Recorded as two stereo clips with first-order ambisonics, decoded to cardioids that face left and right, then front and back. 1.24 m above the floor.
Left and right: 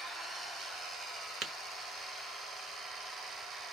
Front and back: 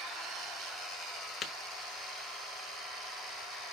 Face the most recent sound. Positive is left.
turn(degrees=-60)